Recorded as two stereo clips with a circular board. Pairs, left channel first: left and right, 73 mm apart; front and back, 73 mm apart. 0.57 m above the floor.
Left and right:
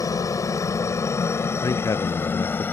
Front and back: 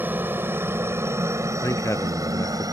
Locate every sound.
0.0 s a helicopter: 120° left; by 2.8 s 150° left
1.6 s a man speaking: 50° left